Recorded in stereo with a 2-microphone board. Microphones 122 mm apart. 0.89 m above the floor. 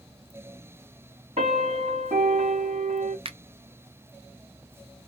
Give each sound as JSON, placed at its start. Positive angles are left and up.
{"t": 1.4, "sound": "a piano", "side_deg": -60, "distance_m": 1.8}
{"t": 3.2, "sound": "a finger snap", "side_deg": -50, "distance_m": 0.5}